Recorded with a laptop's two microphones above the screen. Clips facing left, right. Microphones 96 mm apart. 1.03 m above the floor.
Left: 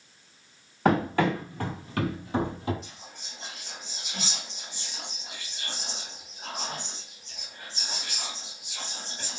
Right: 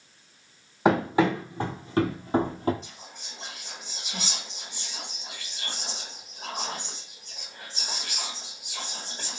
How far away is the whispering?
About 1.7 m.